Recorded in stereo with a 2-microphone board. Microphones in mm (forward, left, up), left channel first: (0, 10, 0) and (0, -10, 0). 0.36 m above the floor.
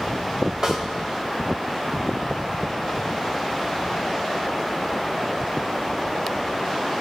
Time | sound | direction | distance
0.6 | a snare drum | 40° right (ahead or behind) | 1.8 m